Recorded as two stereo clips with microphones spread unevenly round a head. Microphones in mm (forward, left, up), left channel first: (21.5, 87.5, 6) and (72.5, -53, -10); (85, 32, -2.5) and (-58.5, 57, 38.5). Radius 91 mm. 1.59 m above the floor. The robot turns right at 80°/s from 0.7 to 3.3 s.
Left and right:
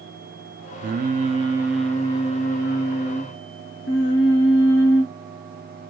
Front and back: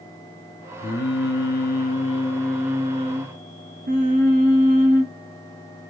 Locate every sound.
0.8 s singing: 60° right, 0.8 m; by 5.1 s 140° left, 0.8 m